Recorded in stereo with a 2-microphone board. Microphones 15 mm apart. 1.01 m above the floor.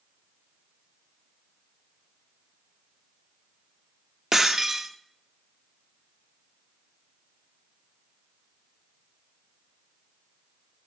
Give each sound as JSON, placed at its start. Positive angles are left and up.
{"t": 4.3, "sound": "breaking glass", "side_deg": -35, "distance_m": 0.6}